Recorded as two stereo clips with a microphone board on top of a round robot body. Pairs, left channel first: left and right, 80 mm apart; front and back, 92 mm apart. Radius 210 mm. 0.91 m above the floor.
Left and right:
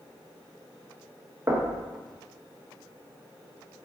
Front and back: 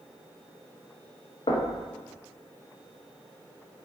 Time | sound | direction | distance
1.5 | knocking | 35° right | 1.0 m